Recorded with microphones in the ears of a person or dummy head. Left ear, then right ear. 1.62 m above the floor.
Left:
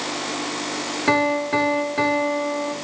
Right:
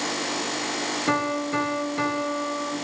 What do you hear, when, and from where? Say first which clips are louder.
1.1 s a piano: left 7 dB; 45° left (ahead or behind), 1.1 m